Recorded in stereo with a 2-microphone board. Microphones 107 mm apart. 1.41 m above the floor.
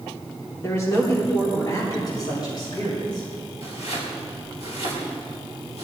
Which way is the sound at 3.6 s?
80° left.